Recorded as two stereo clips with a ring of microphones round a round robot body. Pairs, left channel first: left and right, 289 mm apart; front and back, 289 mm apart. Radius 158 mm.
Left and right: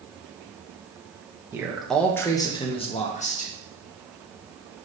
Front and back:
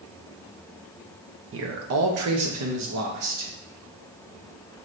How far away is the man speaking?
About 0.9 m.